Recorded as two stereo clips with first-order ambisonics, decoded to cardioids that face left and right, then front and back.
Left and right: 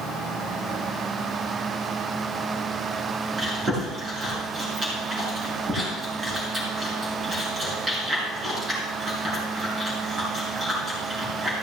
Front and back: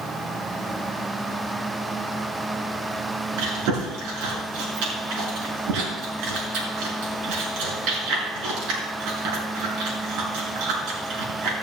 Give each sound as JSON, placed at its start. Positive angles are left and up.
{"t": 3.4, "sound": "chewing", "azimuth_deg": -165, "distance_m": 6.0}